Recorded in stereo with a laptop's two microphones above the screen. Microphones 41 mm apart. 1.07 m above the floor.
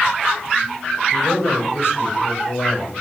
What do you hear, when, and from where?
1.1 s a man speaking: 70° left (ahead or behind), 6 m